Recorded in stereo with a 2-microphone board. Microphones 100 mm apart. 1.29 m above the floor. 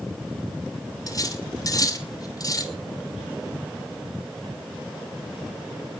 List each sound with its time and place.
1.1 s cutlery clinking: 40° left (ahead or behind), 3 m